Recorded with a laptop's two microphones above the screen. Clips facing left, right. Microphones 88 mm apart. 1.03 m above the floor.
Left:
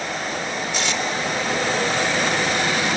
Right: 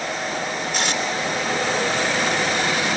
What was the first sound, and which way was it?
Tape being pulled, 50° right (ahead or behind).